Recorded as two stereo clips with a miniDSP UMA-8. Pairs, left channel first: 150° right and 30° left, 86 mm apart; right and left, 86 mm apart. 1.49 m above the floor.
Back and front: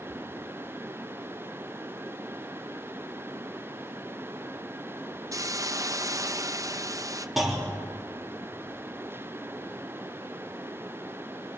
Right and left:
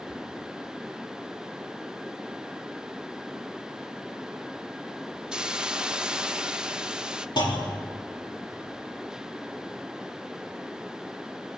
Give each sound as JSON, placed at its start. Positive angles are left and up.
{"t": 5.3, "sound": "a hiss", "azimuth_deg": 10, "distance_m": 0.8}
{"t": 7.4, "sound": "a clunk", "azimuth_deg": -60, "distance_m": 4.0}